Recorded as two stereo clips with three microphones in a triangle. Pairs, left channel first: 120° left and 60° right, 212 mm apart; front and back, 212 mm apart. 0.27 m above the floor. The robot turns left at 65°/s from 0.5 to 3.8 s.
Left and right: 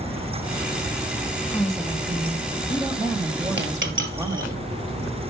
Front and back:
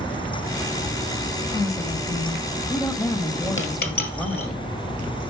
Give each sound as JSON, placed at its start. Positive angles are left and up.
{"t": 1.5, "sound": "a woman speaking", "azimuth_deg": 50, "distance_m": 1.1}
{"t": 3.6, "sound": "a dropped coin", "azimuth_deg": -25, "distance_m": 1.8}